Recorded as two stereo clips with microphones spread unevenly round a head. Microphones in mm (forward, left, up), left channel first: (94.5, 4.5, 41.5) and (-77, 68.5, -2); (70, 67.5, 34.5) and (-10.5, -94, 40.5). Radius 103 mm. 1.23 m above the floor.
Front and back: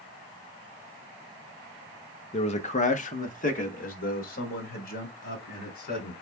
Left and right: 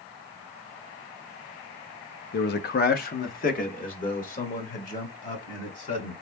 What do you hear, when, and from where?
2.3 s a man speaking: 35° left, 0.7 m; by 6.1 s 15° left, 3 m